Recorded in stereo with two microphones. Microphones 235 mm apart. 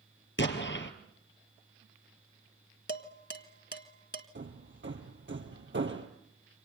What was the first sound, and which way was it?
An explosion, 55° left (ahead or behind).